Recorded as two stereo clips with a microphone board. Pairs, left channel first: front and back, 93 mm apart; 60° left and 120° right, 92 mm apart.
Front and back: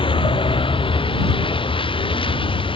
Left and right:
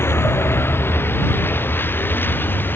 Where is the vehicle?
Straight ahead; by 2.8 s 5° right.